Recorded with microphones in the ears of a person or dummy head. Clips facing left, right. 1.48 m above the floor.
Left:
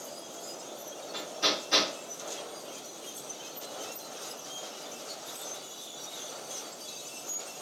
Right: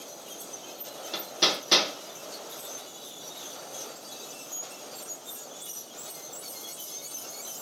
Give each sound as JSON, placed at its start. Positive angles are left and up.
{"t": 1.1, "sound": "hammering", "side_deg": -80, "distance_m": 2.5}